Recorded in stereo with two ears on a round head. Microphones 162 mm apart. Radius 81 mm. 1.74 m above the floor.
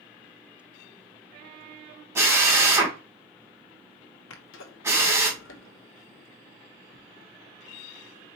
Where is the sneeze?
75° left (ahead or behind), 1.0 m.